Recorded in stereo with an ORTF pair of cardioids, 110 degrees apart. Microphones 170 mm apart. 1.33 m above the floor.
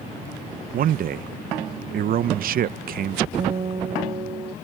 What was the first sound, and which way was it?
A man speaking, 55° right.